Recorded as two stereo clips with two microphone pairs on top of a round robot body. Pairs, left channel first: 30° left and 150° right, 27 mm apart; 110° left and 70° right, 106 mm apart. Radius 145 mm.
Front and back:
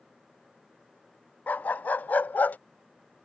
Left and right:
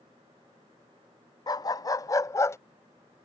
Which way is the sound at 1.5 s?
55° left.